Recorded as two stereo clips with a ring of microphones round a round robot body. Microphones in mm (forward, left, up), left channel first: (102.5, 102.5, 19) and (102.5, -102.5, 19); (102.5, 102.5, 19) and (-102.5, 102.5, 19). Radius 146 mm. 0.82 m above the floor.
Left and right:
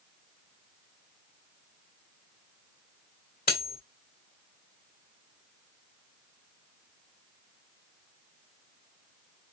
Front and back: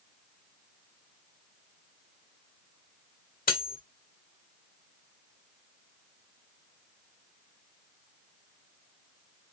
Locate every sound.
3.5 s cutlery clinking: 45° left, 1.7 m